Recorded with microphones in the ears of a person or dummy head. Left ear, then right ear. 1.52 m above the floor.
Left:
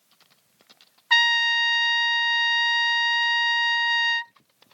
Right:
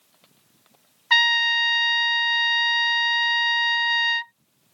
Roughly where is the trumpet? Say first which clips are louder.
Right 1 dB; centre.